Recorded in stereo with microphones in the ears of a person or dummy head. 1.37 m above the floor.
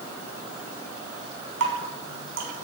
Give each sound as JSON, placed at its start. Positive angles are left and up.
{"t": 1.6, "sound": "dripping", "side_deg": -65, "distance_m": 4.0}